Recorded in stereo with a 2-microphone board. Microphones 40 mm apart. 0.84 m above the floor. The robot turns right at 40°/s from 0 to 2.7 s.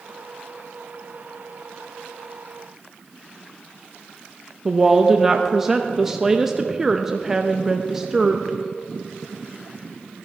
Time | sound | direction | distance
4.7 | a woman speaking | 10° right (ahead or behind) | 0.5 m